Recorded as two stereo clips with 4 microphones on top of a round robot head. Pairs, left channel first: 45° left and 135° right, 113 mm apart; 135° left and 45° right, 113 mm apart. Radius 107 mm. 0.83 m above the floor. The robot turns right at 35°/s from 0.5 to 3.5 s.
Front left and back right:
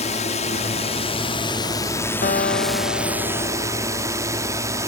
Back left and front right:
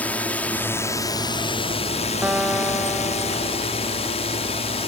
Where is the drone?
60° left; by 4.9 s 165° left.